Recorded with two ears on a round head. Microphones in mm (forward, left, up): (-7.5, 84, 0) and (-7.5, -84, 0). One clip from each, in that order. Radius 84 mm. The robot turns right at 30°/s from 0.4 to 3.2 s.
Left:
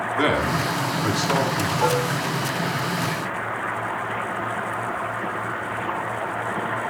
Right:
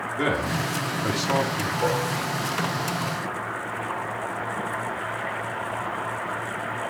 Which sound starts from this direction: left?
Dishes clattering, at 1.8 s.